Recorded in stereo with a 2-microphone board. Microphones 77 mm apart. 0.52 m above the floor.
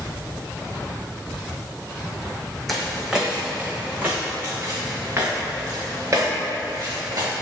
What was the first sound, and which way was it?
Footsteps, centre (ahead or behind).